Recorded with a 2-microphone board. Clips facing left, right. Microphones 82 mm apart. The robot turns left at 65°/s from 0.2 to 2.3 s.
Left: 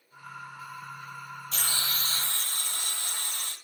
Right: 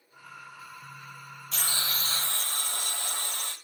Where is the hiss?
5° right, 1.3 m; by 3.5 s 55° right, 1.3 m.